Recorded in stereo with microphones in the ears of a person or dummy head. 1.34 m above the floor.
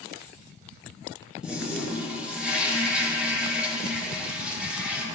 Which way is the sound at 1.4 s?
10° right (ahead or behind).